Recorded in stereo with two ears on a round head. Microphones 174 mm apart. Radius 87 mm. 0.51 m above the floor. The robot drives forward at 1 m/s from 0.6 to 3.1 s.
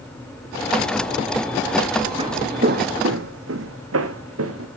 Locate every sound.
2.2 s footsteps: 25° right (ahead or behind), 1.6 m; by 4.7 s 80° right, 2.5 m